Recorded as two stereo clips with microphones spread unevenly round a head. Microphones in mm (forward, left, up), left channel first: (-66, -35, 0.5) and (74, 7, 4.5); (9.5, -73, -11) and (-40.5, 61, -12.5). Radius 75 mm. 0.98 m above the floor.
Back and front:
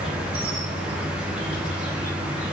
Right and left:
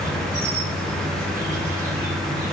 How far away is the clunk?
I don't hear a clunk.